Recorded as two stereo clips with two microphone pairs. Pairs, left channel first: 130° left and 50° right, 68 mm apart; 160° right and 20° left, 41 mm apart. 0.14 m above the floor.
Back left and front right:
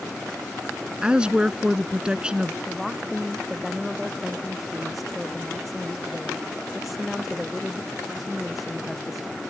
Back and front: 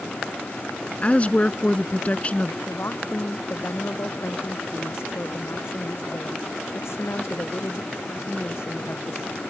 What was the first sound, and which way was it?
A woman speaking, 120° right.